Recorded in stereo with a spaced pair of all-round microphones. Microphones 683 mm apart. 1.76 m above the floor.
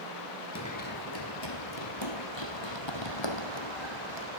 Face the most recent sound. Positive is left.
turn(degrees=40)  # may be behind; listen again after turning